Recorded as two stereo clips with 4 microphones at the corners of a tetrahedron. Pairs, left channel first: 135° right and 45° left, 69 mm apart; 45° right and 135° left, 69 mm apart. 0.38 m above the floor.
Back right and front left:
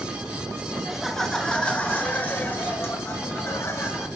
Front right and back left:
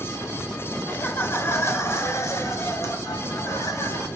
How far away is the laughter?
About 1.0 m.